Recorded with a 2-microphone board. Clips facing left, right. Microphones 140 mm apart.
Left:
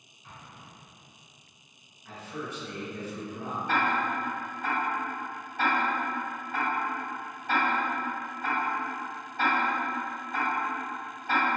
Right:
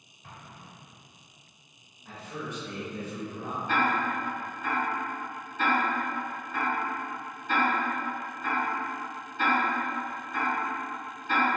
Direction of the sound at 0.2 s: 55° right (ahead or behind).